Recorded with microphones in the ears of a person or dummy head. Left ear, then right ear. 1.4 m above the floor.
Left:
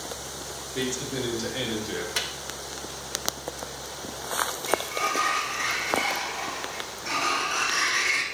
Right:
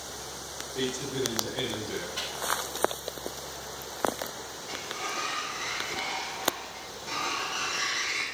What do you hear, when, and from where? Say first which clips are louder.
0.7 s a man speaking: left 1 dB; 50° left (ahead or behind), 2.5 m; by 2.0 s 75° left (ahead or behind), 3 m
2.1 s a microwave: left 7 dB; 65° left (ahead or behind), 1.3 m
4.7 s a sliding door: left 6 dB; 65° left (ahead or behind), 1.9 m